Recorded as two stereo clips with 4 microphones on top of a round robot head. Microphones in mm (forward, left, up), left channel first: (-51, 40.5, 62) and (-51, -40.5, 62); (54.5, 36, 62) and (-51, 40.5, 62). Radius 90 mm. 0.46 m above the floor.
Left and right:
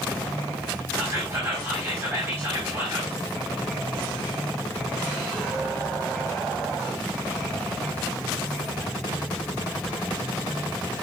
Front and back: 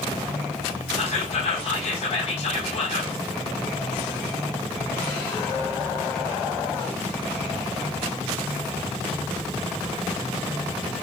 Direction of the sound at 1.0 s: 25° right.